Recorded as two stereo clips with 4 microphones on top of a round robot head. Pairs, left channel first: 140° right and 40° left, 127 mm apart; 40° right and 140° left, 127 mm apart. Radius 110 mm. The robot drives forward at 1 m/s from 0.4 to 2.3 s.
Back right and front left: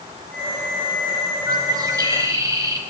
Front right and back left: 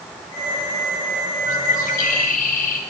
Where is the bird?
20° right, 5.5 m; by 2.8 s 25° right, 5 m.